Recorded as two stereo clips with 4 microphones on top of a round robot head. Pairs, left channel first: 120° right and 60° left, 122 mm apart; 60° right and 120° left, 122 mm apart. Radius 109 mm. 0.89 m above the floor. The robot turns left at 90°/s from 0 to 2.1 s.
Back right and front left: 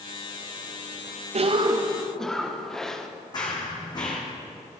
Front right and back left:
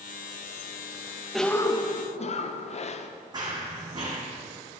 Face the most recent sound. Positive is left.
turn(degrees=180)